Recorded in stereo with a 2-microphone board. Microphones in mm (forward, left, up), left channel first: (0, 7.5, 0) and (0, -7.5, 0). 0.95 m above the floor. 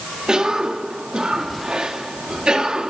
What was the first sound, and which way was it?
A cough, 65° right (ahead or behind).